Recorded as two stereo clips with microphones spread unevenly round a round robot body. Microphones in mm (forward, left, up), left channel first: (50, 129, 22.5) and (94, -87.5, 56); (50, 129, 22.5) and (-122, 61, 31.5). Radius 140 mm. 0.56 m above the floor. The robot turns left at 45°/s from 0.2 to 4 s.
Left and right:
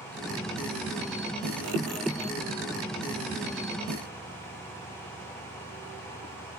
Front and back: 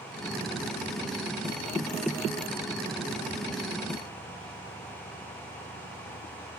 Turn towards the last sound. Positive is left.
No sound to turn to.